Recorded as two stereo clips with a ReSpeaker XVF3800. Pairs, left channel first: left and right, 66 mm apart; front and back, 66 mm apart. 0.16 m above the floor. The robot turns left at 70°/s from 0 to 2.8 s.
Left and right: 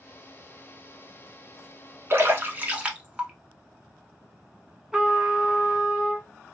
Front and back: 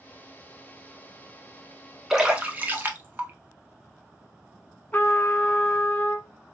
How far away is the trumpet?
About 0.7 m.